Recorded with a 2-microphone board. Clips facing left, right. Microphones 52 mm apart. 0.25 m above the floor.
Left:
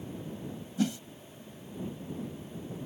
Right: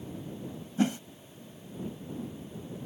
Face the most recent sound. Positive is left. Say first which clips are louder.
# right 3 dB
turn(degrees=-35)  # may be behind; listen again after turning